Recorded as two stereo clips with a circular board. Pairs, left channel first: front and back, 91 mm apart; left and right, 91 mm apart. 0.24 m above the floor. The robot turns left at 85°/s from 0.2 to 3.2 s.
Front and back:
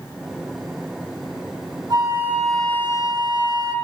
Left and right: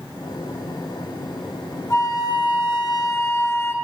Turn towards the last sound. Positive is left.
turn(degrees=30)